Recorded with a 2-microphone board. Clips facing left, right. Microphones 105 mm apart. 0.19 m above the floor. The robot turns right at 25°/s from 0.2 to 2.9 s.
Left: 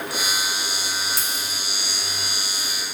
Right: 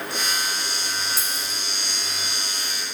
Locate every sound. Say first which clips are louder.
1.2 s a dropped coin: left 1 dB; 5° right (ahead or behind), 0.9 m; by 1.6 s 15° right (ahead or behind), 0.9 m